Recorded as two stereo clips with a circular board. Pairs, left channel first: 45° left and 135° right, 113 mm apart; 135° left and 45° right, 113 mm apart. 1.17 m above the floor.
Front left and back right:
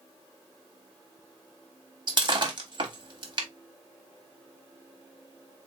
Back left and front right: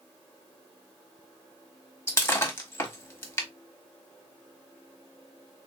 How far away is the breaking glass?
About 1.0 m.